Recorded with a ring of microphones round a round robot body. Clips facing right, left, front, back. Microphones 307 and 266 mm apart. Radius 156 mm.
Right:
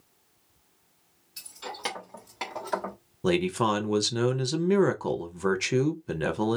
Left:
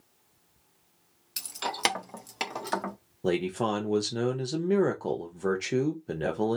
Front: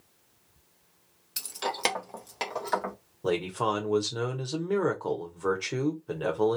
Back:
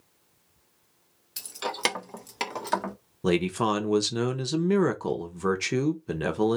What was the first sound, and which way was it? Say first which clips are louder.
Keys jangling: left 5 dB, even; 80° left.